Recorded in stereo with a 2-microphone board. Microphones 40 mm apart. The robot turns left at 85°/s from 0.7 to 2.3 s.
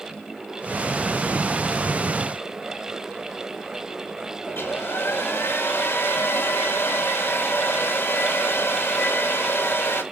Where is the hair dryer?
75° left (ahead or behind), 2.5 m.